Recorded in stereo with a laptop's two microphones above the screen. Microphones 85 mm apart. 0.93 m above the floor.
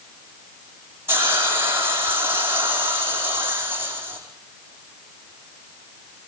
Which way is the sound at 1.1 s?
30° right (ahead or behind).